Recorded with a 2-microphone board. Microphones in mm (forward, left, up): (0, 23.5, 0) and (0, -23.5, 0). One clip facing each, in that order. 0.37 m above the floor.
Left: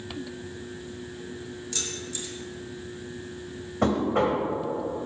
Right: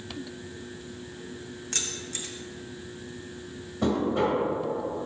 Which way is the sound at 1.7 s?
45° right (ahead or behind).